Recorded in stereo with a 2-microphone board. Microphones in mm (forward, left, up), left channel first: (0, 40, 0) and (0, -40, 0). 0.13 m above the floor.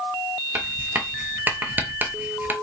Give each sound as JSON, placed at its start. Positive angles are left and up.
{"t": 0.6, "sound": "writing", "side_deg": -25, "distance_m": 0.6}